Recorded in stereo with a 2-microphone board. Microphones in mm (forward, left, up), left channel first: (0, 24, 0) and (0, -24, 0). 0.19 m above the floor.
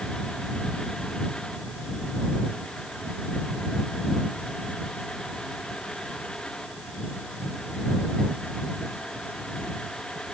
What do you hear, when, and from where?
Only background noise.